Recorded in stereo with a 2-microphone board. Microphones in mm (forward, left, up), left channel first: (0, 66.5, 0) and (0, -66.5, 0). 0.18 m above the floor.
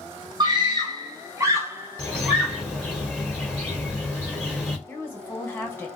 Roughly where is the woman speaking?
Centre.